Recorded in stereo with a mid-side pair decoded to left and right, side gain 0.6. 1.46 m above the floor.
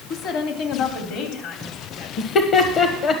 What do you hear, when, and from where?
0.1 s a woman speaking: 55° left, 2.5 m; by 2.1 s 65° left, 3.5 m
2.2 s laughter: 50° left, 1.4 m